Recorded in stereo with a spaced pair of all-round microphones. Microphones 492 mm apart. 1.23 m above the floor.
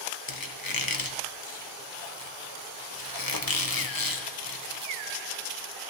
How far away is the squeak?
About 0.8 m.